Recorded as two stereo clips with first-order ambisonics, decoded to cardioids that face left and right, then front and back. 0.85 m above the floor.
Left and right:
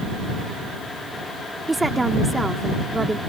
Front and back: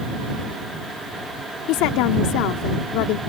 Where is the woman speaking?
10° right.